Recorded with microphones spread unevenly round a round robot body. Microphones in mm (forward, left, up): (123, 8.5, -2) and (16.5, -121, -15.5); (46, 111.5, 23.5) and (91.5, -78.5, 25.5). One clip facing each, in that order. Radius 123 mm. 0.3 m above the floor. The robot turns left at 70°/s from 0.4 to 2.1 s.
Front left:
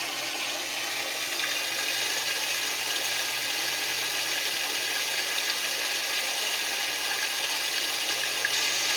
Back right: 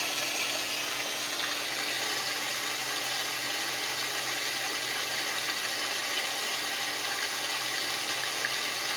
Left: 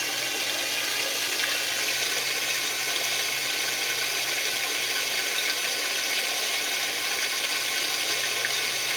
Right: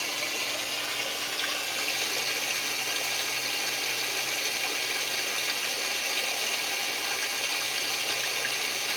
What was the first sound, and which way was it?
Running water, 160° left.